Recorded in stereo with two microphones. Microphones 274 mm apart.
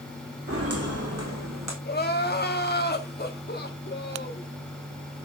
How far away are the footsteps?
About 3 m.